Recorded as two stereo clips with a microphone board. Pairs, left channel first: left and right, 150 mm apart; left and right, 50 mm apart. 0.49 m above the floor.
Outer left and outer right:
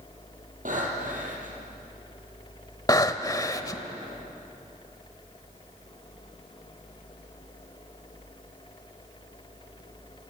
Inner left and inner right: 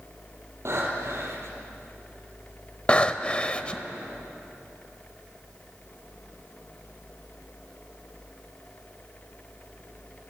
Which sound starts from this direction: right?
Breathing, at 0.7 s.